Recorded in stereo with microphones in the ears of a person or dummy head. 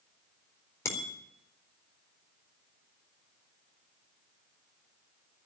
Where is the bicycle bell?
20° left (ahead or behind), 3.5 m.